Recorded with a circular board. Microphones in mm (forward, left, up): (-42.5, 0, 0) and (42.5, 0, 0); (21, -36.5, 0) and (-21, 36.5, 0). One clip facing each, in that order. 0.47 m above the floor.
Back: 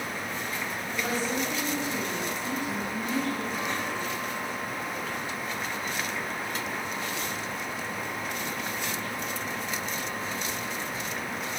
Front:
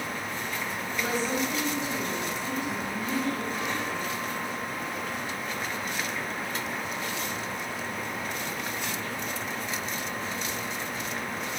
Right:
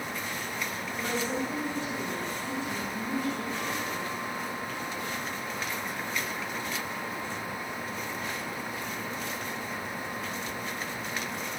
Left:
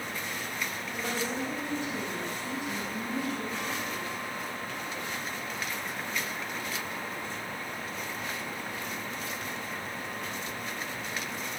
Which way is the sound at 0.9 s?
165° right.